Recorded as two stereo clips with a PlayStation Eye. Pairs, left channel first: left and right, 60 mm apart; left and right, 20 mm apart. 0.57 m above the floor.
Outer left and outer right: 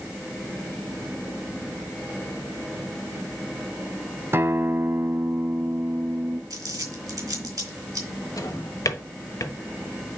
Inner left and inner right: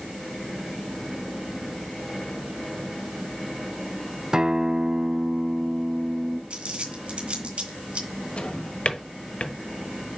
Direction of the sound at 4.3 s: 40° right (ahead or behind).